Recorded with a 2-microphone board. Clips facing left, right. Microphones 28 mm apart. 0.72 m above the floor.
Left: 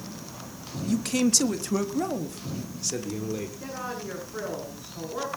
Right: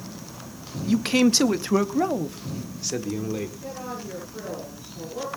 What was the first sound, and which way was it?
A man speaking, 30° right (ahead or behind).